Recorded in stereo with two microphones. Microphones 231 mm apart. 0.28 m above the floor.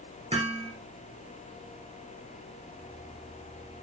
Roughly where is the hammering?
Right.